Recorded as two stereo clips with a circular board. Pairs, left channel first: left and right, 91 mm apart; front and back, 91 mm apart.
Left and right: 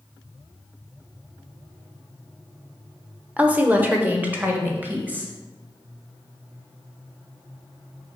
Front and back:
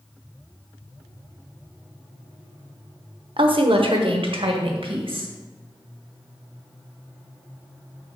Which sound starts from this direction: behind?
A woman speaking, at 3.4 s.